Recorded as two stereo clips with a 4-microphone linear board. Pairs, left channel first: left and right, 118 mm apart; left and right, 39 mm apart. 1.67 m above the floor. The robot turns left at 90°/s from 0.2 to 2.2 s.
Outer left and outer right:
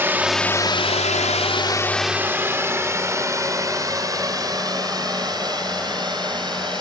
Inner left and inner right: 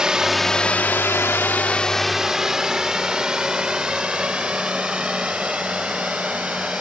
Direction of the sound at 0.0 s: 20° right (ahead or behind).